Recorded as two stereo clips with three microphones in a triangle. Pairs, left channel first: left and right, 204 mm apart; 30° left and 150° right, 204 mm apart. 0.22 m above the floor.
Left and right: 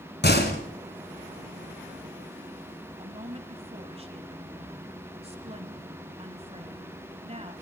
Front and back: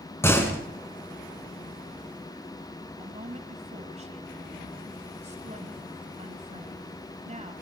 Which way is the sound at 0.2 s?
105° left.